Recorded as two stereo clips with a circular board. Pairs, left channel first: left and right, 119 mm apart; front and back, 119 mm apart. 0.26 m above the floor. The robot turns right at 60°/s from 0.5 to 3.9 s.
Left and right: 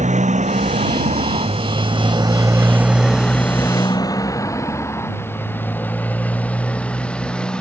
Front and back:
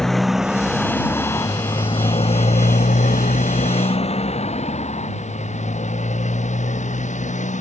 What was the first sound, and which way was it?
A motorcycle, 85° right.